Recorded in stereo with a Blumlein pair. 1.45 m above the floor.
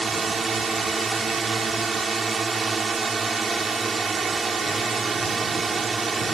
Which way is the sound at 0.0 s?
15° right.